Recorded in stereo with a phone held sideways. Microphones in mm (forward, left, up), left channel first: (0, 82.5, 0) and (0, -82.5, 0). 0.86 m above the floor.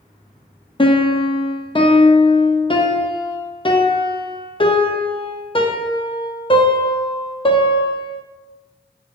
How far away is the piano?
About 0.5 m.